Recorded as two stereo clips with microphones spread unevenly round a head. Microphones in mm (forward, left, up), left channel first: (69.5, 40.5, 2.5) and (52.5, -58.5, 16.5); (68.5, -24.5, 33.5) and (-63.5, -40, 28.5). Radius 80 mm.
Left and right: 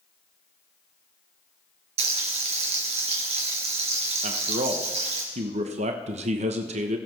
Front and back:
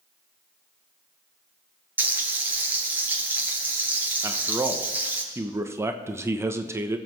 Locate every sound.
2.0 s frying: 95° right, 3.5 m
4.2 s a man speaking: 105° right, 1.0 m